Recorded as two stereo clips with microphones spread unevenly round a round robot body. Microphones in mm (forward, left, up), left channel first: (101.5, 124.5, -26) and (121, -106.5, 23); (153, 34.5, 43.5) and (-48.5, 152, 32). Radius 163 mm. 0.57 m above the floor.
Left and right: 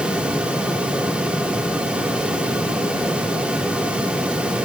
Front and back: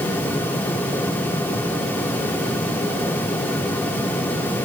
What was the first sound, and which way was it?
Only background noise.